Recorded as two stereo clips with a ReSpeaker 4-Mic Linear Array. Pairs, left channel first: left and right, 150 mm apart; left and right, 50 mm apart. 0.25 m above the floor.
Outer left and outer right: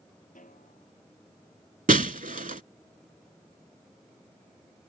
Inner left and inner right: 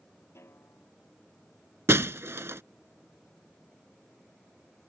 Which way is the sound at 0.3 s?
60° left (ahead or behind).